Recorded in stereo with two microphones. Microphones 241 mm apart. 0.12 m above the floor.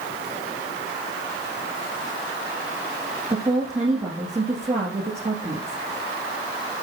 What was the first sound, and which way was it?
A woman speaking, 30° right (ahead or behind).